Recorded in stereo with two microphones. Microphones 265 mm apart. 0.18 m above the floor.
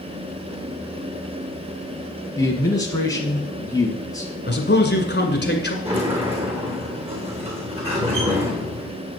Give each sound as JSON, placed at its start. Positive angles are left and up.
{"t": 2.4, "sound": "a man speaking", "side_deg": 10, "distance_m": 1.6}
{"t": 4.5, "sound": "a man speaking", "side_deg": 40, "distance_m": 2.0}
{"t": 5.8, "sound": "a sliding door", "side_deg": -20, "distance_m": 3.0}